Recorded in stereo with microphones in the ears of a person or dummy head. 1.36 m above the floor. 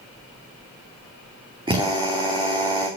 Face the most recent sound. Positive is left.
turn(degrees=-25)  # may be behind; listen again after turning